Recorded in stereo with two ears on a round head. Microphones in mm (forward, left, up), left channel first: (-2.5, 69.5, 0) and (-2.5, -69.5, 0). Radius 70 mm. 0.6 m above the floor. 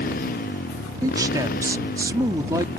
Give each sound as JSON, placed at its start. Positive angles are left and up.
{"t": 0.0, "sound": "a motorcycle", "side_deg": 60}
{"t": 1.0, "sound": "a man speaking", "side_deg": -20}